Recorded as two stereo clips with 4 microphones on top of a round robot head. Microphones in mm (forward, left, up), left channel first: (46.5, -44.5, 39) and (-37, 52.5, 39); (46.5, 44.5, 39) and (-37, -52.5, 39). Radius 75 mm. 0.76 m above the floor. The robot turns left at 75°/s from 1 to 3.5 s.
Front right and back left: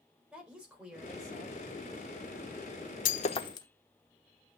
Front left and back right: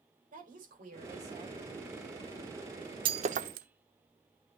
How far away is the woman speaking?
About 4.5 m.